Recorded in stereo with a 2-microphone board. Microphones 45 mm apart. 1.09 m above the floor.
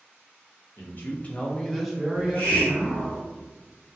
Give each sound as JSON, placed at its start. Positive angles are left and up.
{"t": 0.8, "sound": "a man speaking", "side_deg": 55, "distance_m": 0.7}
{"t": 2.1, "sound": "a hiss", "side_deg": 35, "distance_m": 1.3}